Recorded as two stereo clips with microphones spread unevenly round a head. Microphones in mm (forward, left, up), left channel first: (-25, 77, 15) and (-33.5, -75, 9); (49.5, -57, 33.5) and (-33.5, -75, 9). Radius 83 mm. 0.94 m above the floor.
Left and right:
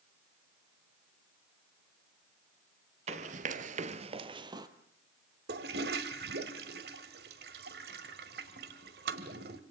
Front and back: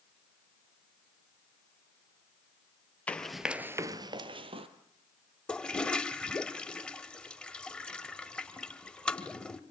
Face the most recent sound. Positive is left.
turn(degrees=-60)